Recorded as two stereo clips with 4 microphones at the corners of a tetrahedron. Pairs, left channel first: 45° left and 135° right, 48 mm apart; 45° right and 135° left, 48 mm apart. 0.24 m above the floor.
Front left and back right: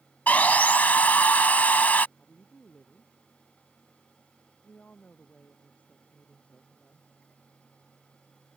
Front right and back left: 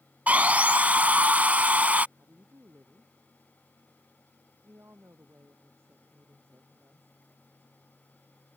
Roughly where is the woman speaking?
Left.